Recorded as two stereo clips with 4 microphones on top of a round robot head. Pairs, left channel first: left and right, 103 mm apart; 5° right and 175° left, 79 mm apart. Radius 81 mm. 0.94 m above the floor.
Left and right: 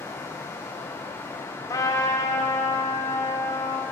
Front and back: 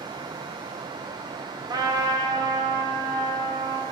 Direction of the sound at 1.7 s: 145° left.